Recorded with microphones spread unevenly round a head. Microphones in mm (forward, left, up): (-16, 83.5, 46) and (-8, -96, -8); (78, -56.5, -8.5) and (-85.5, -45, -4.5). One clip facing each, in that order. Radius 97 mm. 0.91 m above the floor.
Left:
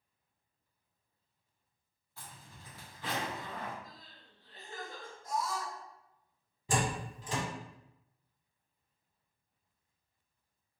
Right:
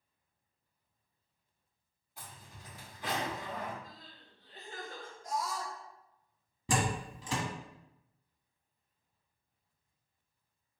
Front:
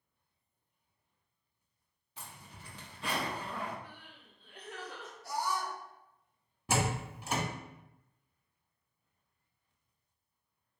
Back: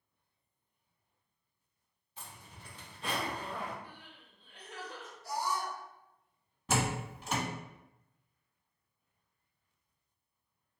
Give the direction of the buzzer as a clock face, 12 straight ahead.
No buzzer in this recording.